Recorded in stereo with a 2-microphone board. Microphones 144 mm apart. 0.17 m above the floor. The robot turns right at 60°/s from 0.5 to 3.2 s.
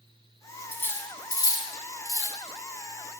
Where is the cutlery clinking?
10° left (ahead or behind), 0.6 m; by 2.4 s 20° left (ahead or behind), 0.6 m.